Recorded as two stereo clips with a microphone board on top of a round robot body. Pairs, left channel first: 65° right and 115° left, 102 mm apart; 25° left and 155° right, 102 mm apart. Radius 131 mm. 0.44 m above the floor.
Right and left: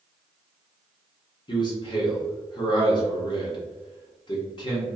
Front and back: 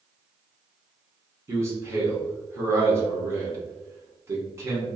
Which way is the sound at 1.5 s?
100° right.